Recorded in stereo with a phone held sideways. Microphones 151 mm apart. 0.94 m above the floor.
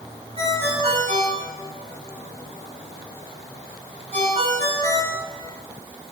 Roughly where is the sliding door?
No sliding door in this recording.